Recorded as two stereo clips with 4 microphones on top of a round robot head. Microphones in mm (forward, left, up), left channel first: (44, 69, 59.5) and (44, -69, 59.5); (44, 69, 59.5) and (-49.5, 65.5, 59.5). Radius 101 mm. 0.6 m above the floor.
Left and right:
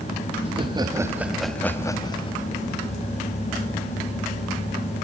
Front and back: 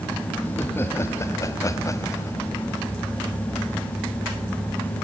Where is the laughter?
60° right, 1.7 m; by 2.4 s 55° left, 1.7 m.